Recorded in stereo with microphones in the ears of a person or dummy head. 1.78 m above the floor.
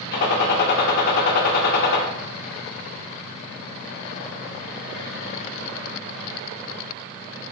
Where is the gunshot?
55° left (ahead or behind), 0.6 m.